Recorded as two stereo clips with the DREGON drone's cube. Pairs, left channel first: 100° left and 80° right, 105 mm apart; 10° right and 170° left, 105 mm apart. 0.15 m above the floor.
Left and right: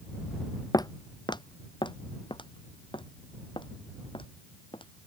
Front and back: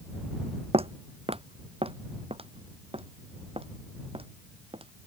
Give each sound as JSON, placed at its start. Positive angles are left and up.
{"t": 0.7, "sound": "footsteps", "azimuth_deg": 150}